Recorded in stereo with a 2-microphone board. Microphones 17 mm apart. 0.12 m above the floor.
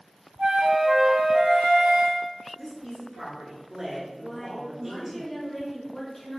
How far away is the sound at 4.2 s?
About 1.8 m.